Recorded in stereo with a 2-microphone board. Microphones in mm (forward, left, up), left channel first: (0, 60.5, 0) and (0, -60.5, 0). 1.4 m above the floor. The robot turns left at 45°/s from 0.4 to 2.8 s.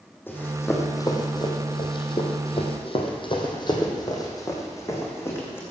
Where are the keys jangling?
No keys jangling in this recording.